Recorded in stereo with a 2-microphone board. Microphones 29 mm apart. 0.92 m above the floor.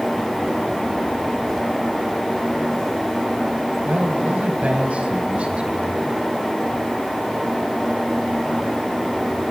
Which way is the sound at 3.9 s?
70° right (ahead or behind).